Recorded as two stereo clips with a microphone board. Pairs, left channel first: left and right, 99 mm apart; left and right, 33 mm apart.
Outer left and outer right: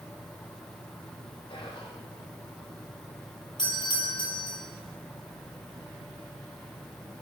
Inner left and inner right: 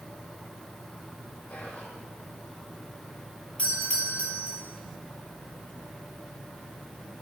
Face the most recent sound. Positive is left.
turn(degrees=50)  # may be behind; listen again after turning